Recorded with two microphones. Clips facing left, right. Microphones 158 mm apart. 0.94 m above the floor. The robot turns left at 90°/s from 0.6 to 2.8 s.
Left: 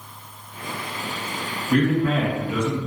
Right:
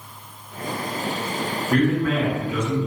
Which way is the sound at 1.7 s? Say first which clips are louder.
Left 1 dB; straight behind.